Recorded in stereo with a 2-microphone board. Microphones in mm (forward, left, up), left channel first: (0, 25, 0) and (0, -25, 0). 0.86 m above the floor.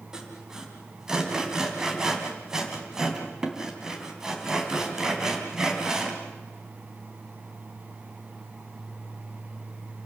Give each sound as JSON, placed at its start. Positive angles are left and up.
{"t": 0.1, "sound": "sawing", "side_deg": -15, "distance_m": 3.0}